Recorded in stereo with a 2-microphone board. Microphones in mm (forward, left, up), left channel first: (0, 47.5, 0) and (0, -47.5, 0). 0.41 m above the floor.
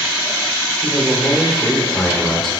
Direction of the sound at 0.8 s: 5° left (ahead or behind).